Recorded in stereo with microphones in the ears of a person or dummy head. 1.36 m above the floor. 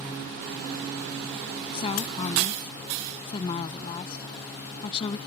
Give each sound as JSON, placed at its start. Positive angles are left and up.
{"t": 1.7, "sound": "a woman speaking", "side_deg": 25}